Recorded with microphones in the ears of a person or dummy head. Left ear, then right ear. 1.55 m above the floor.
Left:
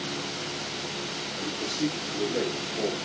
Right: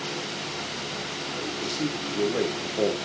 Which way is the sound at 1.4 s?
15° right (ahead or behind).